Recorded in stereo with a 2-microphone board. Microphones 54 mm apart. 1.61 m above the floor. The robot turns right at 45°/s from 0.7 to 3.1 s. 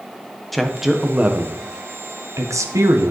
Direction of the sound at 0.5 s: 5° left (ahead or behind).